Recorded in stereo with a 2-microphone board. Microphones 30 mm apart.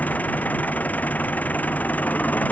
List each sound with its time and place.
0.0 s an engine running: 80° left